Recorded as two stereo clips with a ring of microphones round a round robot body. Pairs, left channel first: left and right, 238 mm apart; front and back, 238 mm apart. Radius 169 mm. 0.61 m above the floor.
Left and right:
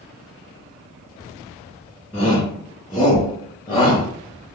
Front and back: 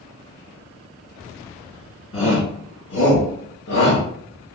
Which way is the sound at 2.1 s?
25° left.